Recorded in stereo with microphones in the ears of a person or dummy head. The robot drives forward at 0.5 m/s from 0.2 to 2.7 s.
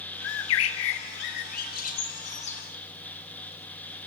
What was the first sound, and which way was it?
A bird, 75° left (ahead or behind).